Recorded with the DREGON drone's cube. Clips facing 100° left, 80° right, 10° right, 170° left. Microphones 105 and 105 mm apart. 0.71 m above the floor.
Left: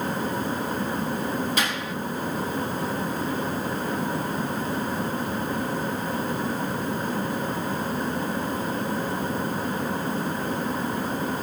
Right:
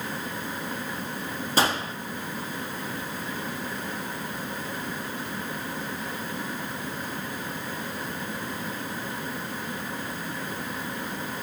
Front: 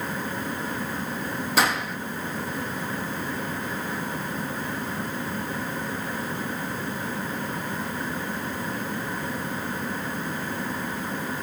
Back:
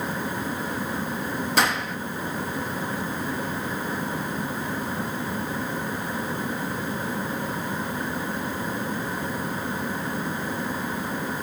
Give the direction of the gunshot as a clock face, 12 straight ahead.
3 o'clock.